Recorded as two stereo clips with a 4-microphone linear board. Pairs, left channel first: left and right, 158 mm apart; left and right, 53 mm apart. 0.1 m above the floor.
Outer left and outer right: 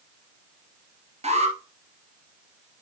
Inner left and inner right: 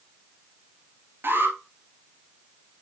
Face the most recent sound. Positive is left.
turn(degrees=-45)  # may be behind; listen again after turning